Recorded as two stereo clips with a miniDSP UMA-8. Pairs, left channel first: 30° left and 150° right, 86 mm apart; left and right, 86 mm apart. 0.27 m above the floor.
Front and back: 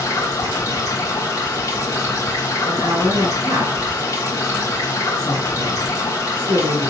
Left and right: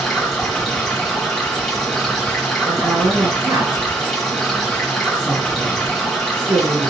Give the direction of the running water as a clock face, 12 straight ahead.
12 o'clock.